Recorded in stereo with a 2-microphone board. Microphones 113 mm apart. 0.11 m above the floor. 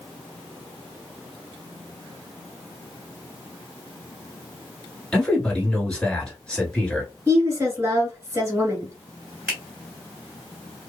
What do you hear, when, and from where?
5.1 s a man speaking: 10° left (ahead or behind), 1.4 m
7.3 s a woman speaking: 20° right (ahead or behind), 1.3 m
9.5 s a finger snap: 10° right (ahead or behind), 1.4 m